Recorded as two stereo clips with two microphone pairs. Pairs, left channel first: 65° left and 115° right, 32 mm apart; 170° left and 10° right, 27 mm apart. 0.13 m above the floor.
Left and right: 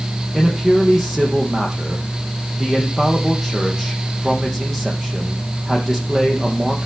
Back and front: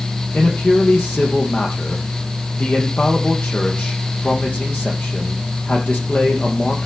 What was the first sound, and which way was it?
A man speaking, 155° left.